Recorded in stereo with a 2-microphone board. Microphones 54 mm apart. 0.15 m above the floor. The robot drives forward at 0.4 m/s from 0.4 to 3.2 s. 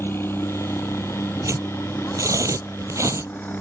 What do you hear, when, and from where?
0.0 s a helicopter: 45° left (ahead or behind); by 3.6 s 35° left (ahead or behind)
1.4 s tearing paper: 70° right (ahead or behind); by 3.3 s 65° right (ahead or behind)